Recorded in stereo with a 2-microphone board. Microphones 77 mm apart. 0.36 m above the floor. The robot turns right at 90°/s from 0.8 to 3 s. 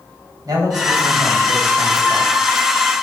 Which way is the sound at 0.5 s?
105° right.